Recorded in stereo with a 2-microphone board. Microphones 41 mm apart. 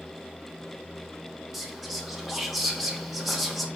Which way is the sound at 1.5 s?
Centre (ahead or behind).